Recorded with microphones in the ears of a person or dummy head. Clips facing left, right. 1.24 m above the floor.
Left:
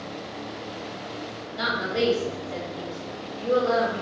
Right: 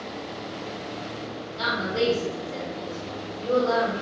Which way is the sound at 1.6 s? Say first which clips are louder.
Even; 25° left (ahead or behind).